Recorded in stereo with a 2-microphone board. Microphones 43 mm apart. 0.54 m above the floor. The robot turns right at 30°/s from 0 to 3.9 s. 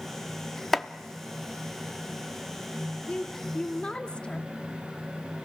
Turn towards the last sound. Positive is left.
turn(degrees=20)  # may be behind; listen again after turning